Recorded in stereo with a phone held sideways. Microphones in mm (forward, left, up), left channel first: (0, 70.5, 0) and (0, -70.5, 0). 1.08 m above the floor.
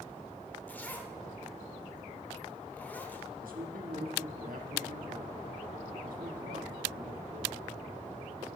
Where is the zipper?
10° left (ahead or behind), 1.0 m.